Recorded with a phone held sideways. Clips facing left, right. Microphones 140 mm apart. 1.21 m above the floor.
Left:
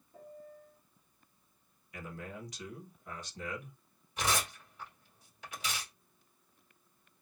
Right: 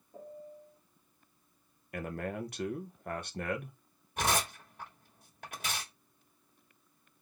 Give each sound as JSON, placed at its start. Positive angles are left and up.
{"t": 0.1, "sound": "a piano", "side_deg": -30, "distance_m": 1.1}
{"t": 1.9, "sound": "a man speaking", "side_deg": -60, "distance_m": 1.0}
{"t": 4.2, "sound": "tearing paper", "side_deg": -55, "distance_m": 2.0}